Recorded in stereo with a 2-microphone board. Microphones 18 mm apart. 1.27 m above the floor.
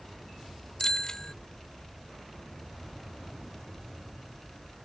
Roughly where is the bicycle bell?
Left.